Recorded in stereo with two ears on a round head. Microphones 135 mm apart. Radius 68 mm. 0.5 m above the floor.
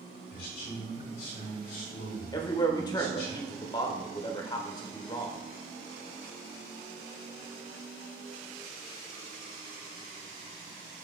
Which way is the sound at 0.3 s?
75° left (ahead or behind).